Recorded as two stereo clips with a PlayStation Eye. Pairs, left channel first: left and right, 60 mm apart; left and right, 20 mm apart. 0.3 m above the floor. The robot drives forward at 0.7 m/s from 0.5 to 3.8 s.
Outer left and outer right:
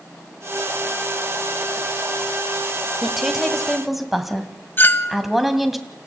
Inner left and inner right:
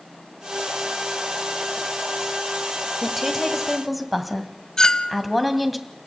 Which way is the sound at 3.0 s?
5° right (ahead or behind).